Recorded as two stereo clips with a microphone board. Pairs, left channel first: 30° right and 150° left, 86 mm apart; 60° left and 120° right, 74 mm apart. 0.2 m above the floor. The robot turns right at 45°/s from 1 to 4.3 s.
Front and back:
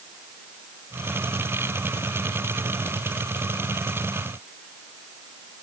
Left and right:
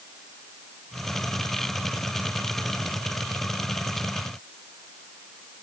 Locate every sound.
Only background noise.